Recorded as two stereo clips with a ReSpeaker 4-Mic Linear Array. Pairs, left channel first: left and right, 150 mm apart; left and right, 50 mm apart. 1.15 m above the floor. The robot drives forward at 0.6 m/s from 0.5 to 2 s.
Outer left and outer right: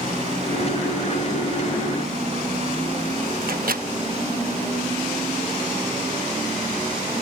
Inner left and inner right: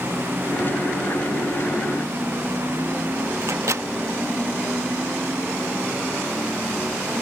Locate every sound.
3.4 s a microwave: 75° right (ahead or behind)